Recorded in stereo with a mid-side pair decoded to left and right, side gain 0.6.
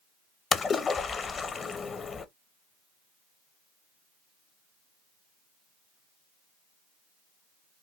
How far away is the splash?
About 0.6 m.